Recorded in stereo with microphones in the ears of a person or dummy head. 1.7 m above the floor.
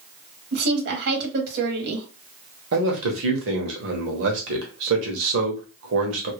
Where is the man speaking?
60° right (ahead or behind), 1.1 m.